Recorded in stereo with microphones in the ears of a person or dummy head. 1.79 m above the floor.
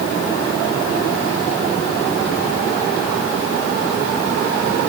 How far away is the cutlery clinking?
I don't hear cutlery clinking.